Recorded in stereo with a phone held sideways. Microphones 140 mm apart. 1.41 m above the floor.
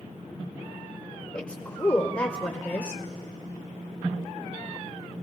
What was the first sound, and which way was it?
A woman speaking, 20° left (ahead or behind).